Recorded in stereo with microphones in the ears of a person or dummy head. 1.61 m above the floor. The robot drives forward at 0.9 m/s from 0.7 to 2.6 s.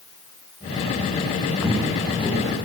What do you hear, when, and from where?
1.6 s footsteps: 5° left (ahead or behind), 4 m